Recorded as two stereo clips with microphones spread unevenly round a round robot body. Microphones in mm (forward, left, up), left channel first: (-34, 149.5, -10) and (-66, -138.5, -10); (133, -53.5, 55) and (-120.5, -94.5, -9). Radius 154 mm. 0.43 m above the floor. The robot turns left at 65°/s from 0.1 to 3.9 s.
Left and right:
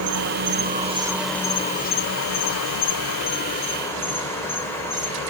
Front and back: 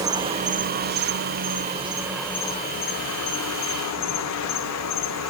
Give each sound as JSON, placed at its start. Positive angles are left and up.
{"t": 0.0, "sound": "an insect", "azimuth_deg": -110, "distance_m": 1.1}